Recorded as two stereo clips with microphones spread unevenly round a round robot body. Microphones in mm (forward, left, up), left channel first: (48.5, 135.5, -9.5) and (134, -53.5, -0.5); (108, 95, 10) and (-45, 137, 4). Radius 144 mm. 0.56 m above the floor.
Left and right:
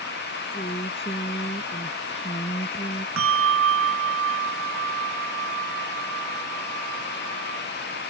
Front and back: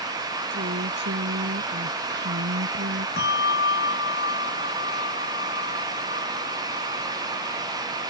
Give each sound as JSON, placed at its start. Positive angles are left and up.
{"t": 0.5, "sound": "a woman speaking", "azimuth_deg": -175}
{"t": 3.2, "sound": "a bell", "azimuth_deg": -60}